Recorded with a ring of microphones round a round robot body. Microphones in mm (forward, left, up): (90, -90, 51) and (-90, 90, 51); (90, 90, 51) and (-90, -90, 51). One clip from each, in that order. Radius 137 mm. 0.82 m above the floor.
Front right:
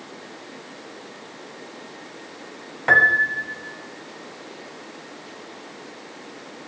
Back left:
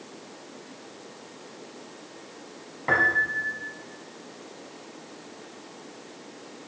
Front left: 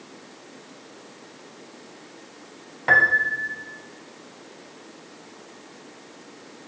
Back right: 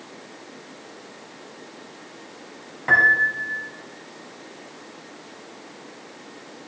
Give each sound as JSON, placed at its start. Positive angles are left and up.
{"t": 2.9, "sound": "a piano", "azimuth_deg": -25, "distance_m": 0.8}